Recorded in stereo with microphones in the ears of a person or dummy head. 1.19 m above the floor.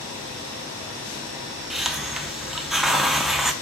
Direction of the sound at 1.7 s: 5° right (ahead or behind).